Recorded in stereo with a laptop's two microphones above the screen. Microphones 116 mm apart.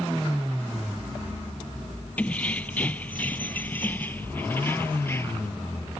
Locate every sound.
2.2 s keys jangling: 10° left (ahead or behind); by 5.5 s 20° left (ahead or behind)